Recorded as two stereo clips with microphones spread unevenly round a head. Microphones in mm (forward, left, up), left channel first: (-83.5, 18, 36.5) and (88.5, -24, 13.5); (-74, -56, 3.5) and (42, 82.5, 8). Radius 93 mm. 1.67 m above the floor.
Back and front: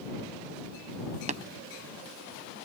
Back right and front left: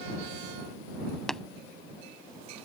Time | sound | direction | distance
1.3 | tapping | 40° right | ?